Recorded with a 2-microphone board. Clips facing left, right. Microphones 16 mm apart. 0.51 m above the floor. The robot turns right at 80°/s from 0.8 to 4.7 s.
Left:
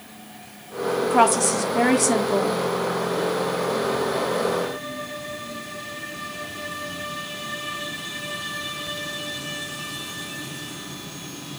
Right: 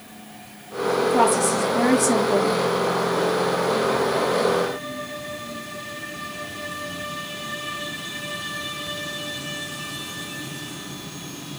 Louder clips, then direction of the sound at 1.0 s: Left 1 dB; 25° left (ahead or behind).